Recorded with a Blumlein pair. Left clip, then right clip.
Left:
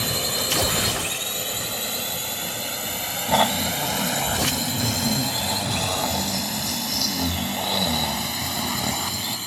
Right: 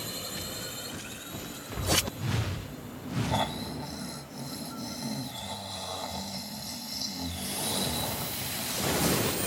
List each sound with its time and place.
0.0 s a drone: 30° left; by 9.5 s 55° left
3.3 s snoring: 60° left